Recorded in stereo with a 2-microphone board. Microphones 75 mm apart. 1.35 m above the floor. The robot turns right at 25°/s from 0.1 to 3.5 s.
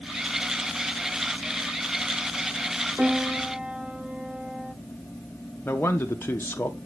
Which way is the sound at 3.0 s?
20° right (ahead or behind).